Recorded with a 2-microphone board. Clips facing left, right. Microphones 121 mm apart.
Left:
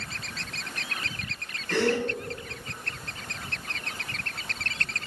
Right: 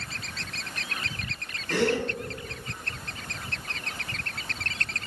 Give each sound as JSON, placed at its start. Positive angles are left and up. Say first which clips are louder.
{"t": 1.7, "sound": "a gasp", "louder": "even", "side_deg": 0, "distance_m": 1.6}